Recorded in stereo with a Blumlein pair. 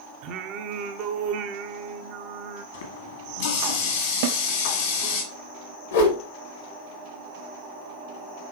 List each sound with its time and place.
0.2 s singing: 40° right, 0.7 m
2.7 s a running tap: 55° left, 2 m
4.2 s a snare drum: 55° right, 0.5 m
5.9 s a whoosh: 60° left, 1.7 m